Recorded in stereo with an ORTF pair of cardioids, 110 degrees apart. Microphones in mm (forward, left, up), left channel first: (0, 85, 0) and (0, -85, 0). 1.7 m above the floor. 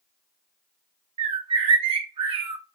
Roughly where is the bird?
Ahead right.